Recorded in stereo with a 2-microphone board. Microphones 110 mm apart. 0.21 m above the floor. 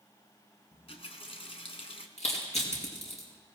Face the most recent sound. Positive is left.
turn(degrees=70)  # may be behind; listen again after turning